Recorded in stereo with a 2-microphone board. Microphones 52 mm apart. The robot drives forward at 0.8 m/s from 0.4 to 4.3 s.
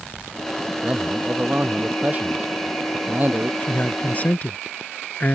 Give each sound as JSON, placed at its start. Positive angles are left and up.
{"t": 0.8, "sound": "a man speaking", "side_deg": -30}
{"t": 3.6, "sound": "a man speaking", "side_deg": 35}